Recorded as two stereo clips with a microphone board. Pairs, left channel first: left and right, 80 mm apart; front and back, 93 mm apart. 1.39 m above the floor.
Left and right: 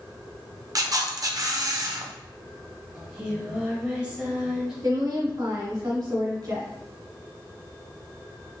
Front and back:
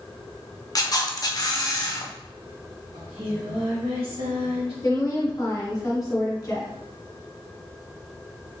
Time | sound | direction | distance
0.8 | a camera shutter | 45° right | 0.6 m
2.9 | singing | 170° right | 1.7 m
4.8 | a woman speaking | 55° right | 1.3 m